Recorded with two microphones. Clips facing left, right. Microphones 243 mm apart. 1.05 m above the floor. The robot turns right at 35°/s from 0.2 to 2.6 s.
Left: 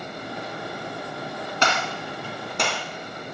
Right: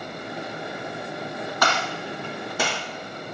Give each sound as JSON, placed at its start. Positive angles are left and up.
{"t": 1.6, "sound": "a gunshot", "side_deg": 30, "distance_m": 1.9}